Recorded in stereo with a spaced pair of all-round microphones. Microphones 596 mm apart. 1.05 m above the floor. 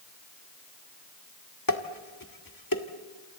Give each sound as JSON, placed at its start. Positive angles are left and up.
{"t": 1.7, "sound": "dishes clattering", "side_deg": 35, "distance_m": 1.6}